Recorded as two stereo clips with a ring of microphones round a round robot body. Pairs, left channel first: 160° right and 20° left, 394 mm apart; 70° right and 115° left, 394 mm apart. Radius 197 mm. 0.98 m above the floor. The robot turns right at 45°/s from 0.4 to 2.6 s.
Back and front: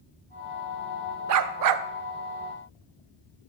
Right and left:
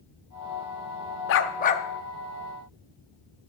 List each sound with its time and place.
1.3 s a dog barking: 20° right, 0.5 m; by 1.9 s 5° left, 0.5 m